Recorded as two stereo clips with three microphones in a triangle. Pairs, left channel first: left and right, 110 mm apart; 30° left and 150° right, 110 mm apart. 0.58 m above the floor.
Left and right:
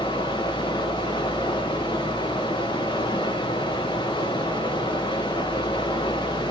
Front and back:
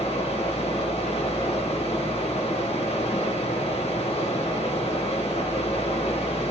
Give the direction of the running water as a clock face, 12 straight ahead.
10 o'clock.